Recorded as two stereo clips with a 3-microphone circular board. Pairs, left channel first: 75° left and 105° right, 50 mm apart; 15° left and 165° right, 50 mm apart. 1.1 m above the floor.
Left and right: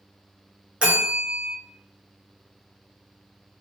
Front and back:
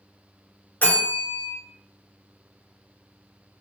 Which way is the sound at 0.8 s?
40° right.